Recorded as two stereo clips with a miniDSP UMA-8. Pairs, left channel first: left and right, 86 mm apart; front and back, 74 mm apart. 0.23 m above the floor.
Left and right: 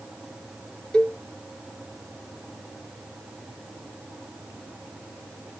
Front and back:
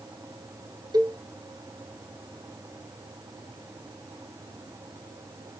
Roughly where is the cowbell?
Behind.